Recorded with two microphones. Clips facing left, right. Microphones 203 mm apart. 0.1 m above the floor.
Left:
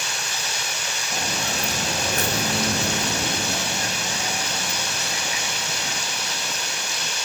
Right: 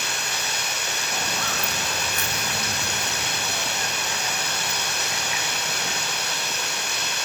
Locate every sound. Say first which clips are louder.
0.0 s running water: right 1 dB; 60° right (ahead or behind), 4.5 m
1.1 s footsteps: left 3 dB; 20° left (ahead or behind), 0.9 m